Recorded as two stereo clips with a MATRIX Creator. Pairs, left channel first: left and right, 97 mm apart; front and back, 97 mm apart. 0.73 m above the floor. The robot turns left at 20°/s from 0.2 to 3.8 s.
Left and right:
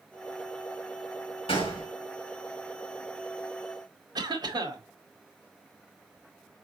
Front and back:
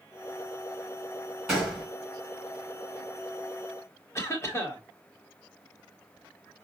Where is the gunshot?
90° left, 3.5 m; by 1.9 s 85° left, 3.5 m.